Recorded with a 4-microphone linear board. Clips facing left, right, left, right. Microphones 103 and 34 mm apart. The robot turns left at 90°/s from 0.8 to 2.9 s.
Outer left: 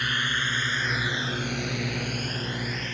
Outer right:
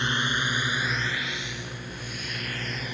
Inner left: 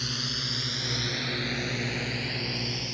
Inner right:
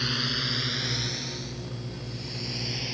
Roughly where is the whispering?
I don't hear whispering.